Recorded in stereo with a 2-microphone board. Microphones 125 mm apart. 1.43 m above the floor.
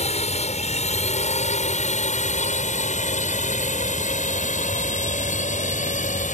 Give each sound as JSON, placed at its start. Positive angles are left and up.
{"t": 0.0, "sound": "a drone", "side_deg": 60}